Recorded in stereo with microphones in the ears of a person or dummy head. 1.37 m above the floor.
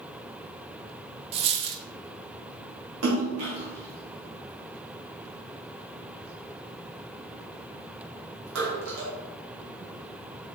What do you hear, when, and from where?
1.3 s a dropped coin: 30° right (ahead or behind), 0.8 m
3.0 s a splash: 85° right, 2.5 m